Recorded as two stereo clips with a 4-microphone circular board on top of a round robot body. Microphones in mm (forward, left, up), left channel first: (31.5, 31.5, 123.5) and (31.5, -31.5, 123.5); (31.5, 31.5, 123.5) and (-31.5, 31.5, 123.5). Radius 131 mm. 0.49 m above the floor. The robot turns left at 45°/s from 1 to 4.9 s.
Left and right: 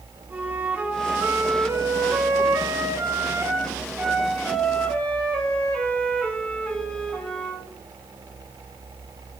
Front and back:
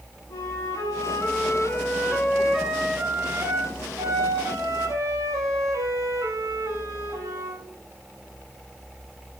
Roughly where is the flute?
Ahead right.